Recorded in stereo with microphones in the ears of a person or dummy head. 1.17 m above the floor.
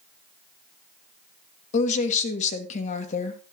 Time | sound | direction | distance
1.7 | a woman speaking | 40° left (ahead or behind) | 1.4 m